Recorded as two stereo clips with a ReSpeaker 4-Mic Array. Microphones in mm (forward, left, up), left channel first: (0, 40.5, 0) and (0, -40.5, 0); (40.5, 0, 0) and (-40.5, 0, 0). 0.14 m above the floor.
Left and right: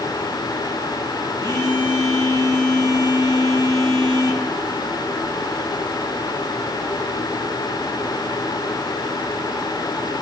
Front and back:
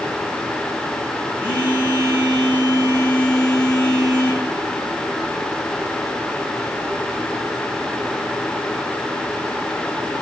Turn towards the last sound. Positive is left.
turn(degrees=-130)